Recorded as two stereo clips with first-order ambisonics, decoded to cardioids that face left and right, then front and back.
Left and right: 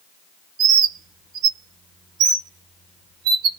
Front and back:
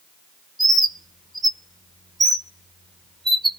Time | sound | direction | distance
0.6 | a bird | 100° right | 1.0 m